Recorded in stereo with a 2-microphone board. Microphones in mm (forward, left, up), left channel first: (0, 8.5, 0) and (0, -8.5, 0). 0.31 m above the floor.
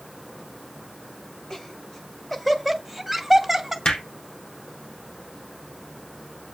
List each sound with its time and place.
1.5 s laughter: 30° left (ahead or behind), 1.8 m; by 3.8 s 10° right (ahead or behind), 2 m
3.9 s hammering: 55° left (ahead or behind), 3.5 m